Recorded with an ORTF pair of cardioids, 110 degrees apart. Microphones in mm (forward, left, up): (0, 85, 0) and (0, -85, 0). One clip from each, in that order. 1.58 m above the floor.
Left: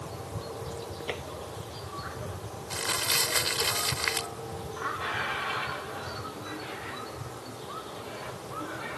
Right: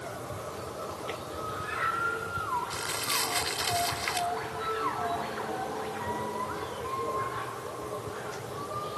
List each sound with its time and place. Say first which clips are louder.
1.1 s tapping: left 2 dB; 30° left
2.7 s crumpling: left 3 dB; 30° left